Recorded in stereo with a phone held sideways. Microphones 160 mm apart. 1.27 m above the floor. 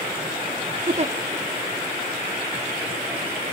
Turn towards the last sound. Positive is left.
turn(degrees=-45)  # may be behind; listen again after turning